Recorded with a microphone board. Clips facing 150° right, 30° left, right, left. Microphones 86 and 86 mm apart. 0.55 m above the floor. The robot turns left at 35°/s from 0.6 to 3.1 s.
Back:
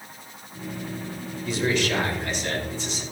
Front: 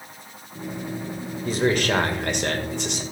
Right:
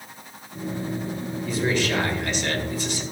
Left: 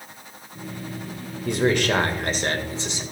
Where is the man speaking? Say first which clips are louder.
Front 3 dB, left 4 dB; 75° left, 2.0 m; by 3.0 s 20° left, 2.0 m.